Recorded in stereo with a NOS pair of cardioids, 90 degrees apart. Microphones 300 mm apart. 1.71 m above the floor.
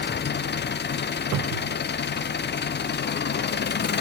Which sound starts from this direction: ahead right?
A cupboard door, at 1.3 s.